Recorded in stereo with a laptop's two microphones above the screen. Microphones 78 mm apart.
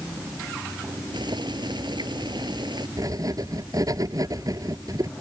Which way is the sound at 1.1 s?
65° right (ahead or behind).